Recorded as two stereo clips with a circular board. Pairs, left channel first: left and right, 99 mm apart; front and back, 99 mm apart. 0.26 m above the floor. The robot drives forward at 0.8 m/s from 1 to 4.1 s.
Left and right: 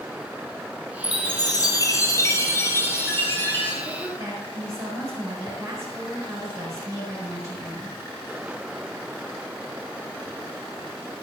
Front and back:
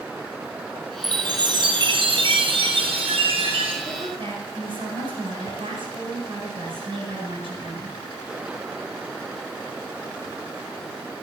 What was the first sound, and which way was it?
A chime, 130° left.